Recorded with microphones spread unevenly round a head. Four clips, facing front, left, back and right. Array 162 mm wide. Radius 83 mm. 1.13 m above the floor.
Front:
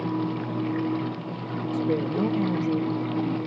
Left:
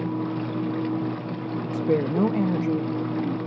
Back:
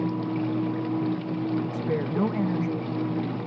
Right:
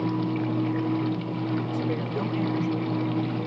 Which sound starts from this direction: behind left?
A woman speaking, at 1.7 s.